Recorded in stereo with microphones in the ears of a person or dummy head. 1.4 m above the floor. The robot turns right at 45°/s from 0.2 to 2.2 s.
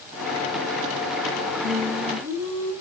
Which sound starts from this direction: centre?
Singing, at 1.6 s.